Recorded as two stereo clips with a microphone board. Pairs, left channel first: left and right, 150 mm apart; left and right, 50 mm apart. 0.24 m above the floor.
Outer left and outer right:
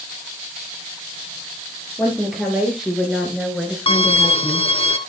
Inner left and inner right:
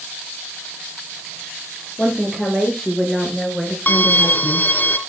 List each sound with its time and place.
2.0 s a woman speaking: 5° right (ahead or behind), 5.5 m; by 4.7 s centre (ahead or behind), 2 m
3.9 s a violin: 40° left (ahead or behind), 0.9 m